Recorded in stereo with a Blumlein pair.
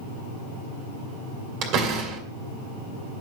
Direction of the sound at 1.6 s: 40° right.